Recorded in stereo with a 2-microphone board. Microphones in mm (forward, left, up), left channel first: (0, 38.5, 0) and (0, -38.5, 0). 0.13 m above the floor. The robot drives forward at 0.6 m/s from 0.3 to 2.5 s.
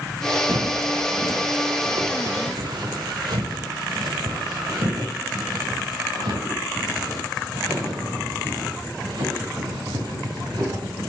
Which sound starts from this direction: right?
Footsteps, at 0.5 s.